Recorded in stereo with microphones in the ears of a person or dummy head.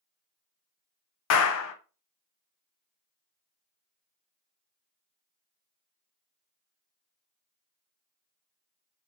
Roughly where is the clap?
Left.